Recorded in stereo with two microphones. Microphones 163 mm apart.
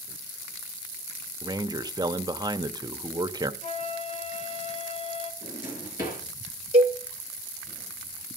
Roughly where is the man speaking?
Right.